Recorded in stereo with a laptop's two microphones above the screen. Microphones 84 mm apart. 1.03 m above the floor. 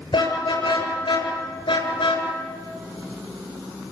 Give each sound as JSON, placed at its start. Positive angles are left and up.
{"t": 0.1, "sound": "a car horn", "side_deg": 65, "distance_m": 8.5}